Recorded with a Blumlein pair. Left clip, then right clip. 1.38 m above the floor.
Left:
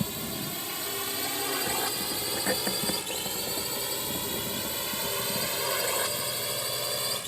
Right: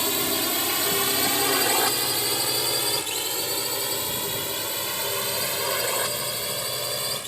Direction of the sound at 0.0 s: 30° right.